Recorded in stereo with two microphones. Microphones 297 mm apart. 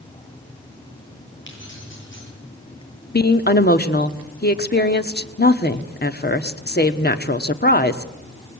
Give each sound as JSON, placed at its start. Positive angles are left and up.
{"t": 1.5, "sound": "keys jangling", "side_deg": 40, "distance_m": 9.5}
{"t": 3.1, "sound": "a woman speaking", "side_deg": 35, "distance_m": 1.4}